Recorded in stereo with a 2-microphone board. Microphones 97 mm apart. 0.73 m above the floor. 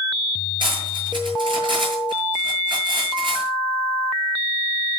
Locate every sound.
0.6 s cutlery clinking: 55° right (ahead or behind), 7.5 m